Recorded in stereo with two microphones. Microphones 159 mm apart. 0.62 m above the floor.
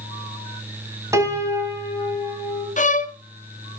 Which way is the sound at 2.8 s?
50° left (ahead or behind).